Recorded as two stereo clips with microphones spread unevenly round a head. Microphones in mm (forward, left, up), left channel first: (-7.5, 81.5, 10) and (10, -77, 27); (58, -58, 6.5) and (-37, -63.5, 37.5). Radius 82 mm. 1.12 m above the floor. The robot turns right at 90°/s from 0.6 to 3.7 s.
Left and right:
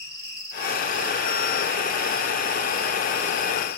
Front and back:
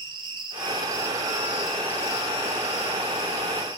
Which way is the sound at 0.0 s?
165° left.